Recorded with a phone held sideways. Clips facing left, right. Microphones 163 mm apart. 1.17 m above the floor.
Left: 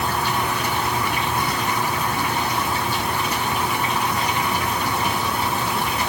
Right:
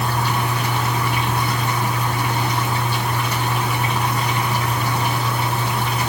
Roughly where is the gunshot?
I don't hear a gunshot.